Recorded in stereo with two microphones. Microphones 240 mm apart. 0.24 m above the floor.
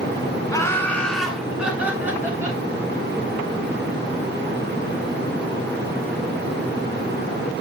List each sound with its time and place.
0.5 s laughter: 15° left (ahead or behind), 1.7 m; by 2.6 s 10° right (ahead or behind), 3.5 m